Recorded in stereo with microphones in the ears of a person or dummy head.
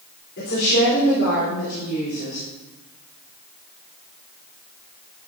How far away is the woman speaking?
About 4 m.